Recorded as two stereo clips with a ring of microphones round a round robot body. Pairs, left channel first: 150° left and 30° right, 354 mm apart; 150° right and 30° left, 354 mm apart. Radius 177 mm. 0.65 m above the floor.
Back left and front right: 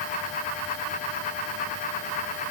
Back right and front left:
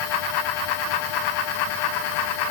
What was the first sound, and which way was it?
Only background noise.